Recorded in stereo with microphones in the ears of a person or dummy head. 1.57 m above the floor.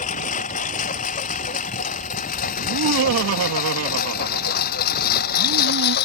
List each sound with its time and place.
0.0 s a lawn mower: 40° left (ahead or behind); by 6.1 s 55° left (ahead or behind)
2.6 s laughter: 80° right